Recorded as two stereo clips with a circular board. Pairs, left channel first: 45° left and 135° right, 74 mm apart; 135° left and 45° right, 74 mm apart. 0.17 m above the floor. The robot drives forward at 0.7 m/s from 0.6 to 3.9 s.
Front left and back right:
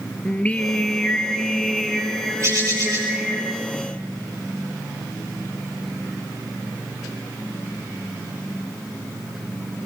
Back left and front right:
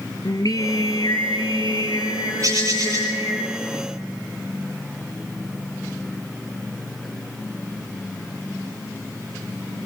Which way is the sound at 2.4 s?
90° right.